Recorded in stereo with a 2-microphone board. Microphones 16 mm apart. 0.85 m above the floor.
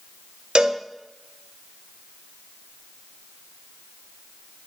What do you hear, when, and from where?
0.6 s a cowbell: 60° right (ahead or behind), 1.0 m